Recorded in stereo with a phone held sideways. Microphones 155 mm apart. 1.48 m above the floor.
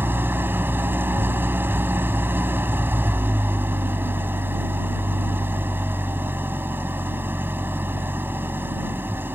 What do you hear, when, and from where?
0.0 s an engine running: 15° right (ahead or behind)